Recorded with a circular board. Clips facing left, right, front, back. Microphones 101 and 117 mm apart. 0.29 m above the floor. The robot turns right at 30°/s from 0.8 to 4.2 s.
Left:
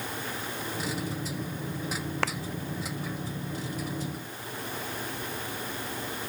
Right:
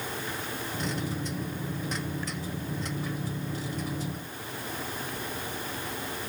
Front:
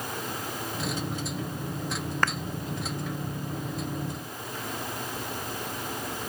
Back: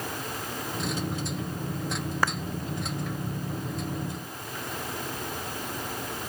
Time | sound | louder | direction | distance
2.2 | a clap | left 7 dB, even | 100° left | ?